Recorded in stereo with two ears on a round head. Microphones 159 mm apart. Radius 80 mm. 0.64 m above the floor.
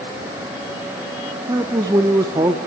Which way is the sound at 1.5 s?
20° right (ahead or behind).